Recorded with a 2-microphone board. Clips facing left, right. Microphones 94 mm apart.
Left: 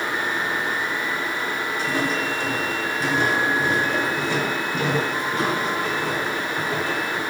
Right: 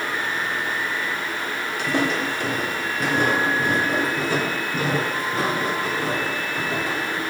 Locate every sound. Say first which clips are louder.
1.8 s footsteps: right 3 dB; 75° right (ahead or behind), 2.5 m; by 7.2 s 25° right (ahead or behind), 4 m